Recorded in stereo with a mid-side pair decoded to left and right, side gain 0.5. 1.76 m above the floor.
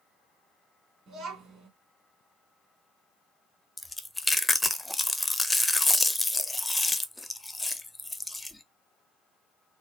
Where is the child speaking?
50° right, 2.5 m.